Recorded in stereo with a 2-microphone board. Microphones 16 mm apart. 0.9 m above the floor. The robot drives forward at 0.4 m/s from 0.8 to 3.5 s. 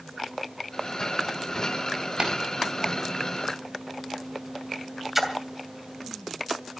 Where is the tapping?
75° right (ahead or behind), 4 m.